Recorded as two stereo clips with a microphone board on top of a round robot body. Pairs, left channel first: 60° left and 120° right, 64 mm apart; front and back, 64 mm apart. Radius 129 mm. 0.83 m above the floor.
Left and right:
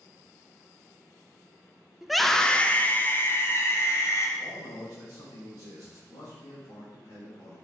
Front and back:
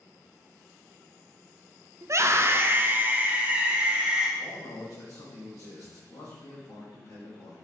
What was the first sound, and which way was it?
A scream, 160° left.